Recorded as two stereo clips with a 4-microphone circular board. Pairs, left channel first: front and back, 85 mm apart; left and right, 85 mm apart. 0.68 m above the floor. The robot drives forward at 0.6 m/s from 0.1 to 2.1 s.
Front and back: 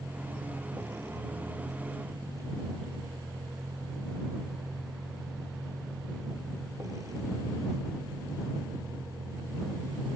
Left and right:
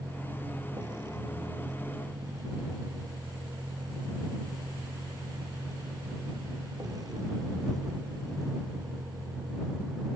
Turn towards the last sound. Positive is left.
turn(degrees=-130)